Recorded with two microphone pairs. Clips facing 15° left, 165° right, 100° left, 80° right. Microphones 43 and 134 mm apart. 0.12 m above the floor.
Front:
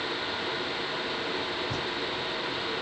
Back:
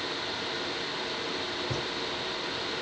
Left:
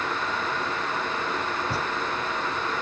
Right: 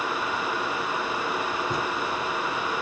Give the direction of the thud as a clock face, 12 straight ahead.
7 o'clock.